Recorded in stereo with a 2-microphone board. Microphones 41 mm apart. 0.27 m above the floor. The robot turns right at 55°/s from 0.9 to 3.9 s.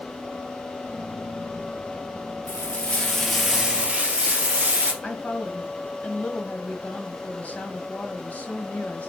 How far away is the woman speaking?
About 1.8 m.